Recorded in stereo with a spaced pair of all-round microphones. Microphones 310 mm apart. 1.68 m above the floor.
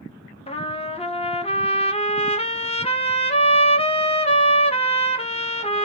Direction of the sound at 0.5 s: 20° left (ahead or behind).